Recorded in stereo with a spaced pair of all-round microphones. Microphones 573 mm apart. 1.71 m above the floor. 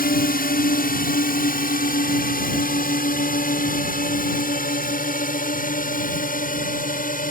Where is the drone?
15° left (ahead or behind).